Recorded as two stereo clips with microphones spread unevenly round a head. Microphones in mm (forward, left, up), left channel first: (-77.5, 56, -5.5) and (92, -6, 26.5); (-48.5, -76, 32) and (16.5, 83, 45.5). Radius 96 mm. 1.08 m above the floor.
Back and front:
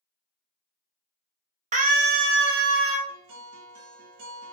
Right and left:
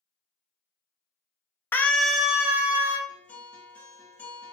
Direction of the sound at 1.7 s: 55° right.